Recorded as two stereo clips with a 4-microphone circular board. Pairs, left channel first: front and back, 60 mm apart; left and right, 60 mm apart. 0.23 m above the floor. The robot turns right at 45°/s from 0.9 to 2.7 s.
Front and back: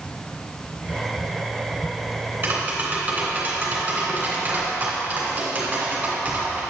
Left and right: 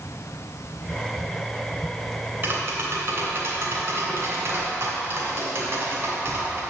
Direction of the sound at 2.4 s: 130° right.